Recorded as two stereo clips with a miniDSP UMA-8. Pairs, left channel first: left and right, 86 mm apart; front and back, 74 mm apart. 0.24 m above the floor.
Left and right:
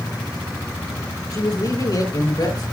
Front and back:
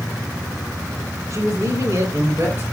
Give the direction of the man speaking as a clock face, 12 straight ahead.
8 o'clock.